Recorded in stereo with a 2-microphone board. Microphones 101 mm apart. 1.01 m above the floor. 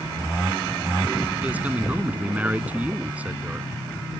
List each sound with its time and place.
1.4 s a man speaking: 15° right (ahead or behind)